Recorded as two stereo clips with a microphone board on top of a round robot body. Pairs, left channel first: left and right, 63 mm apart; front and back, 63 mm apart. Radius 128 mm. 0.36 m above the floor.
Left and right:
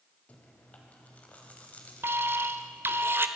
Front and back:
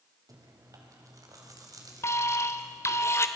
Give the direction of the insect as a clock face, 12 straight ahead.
I don't hear an insect.